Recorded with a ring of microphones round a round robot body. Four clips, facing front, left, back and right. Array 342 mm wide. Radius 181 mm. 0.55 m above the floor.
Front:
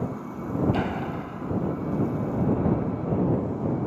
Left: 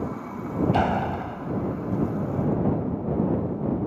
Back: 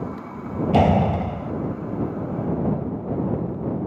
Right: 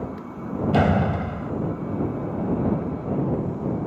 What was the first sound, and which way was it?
A door slam, 150° right.